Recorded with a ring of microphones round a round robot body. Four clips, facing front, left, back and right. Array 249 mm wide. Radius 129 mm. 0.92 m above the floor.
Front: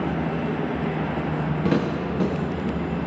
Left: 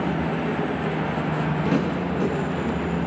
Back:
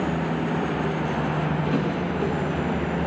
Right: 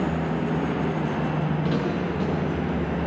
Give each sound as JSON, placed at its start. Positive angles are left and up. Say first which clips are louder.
{"t": 1.6, "sound": "footsteps", "louder": "left 2 dB, front 1 dB", "azimuth_deg": 10, "distance_m": 9.5}